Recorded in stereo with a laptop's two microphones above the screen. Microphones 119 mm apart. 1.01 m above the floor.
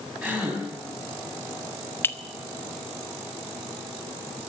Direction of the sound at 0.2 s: 10° right (ahead or behind).